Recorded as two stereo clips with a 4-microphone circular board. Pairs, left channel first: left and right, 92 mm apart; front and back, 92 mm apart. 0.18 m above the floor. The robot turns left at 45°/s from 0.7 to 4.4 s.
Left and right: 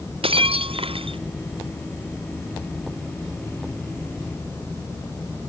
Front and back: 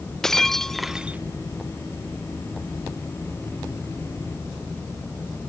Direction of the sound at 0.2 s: 85° right.